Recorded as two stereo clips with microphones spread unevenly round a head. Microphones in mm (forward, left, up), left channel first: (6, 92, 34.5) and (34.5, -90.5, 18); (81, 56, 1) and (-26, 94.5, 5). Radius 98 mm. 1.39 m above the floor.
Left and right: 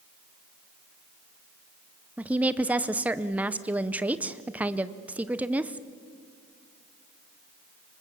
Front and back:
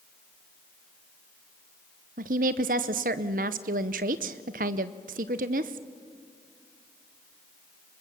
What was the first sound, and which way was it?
A woman speaking, 165° right.